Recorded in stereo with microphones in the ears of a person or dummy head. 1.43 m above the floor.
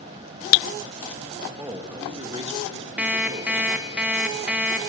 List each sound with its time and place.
1.6 s a man speaking: 10° right (ahead or behind), 1.9 m; by 3.7 s 50° right (ahead or behind), 4.5 m
3.0 s an alarm clock: 5° right (ahead or behind), 0.9 m